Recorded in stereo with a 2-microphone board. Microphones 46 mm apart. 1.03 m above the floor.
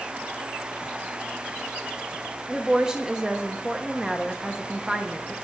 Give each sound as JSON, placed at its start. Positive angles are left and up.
{"t": 2.5, "sound": "a woman speaking", "side_deg": -15, "distance_m": 0.7}